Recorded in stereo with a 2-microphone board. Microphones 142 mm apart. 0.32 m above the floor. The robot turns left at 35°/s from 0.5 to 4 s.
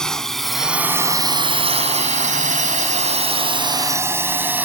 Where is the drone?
5° left (ahead or behind); by 4.7 s 15° right (ahead or behind).